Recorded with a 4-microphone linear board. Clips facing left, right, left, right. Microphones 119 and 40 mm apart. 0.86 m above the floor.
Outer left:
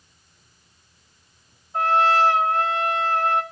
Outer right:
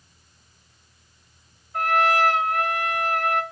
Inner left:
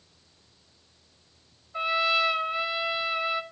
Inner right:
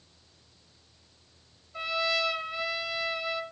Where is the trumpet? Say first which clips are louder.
Outer left 2 dB, inner left 5 dB; 25° left (ahead or behind), 2.0 m.